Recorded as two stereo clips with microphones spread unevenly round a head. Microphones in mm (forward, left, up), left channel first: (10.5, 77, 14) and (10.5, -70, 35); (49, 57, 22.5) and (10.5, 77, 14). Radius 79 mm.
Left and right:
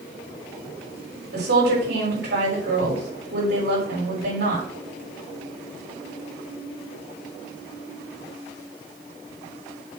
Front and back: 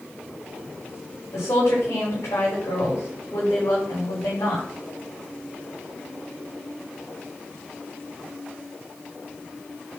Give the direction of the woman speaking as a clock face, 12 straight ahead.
2 o'clock.